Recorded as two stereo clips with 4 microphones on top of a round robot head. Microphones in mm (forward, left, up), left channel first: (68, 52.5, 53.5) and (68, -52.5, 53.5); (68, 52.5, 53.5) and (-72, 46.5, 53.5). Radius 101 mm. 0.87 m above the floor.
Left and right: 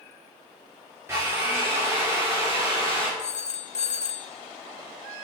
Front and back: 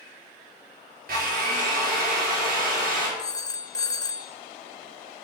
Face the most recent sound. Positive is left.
turn(degrees=70)